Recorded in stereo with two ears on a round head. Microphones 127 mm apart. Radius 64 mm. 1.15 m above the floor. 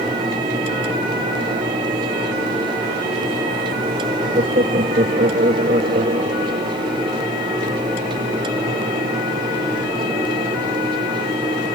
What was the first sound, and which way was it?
Laughter, 55° right (ahead or behind).